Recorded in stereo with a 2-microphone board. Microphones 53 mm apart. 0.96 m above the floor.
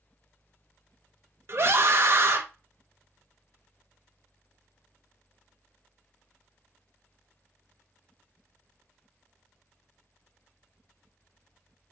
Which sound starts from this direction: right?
A scream, at 1.5 s.